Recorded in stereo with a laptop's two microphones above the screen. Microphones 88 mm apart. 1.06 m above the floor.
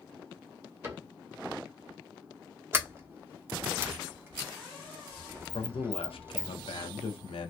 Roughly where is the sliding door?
Right.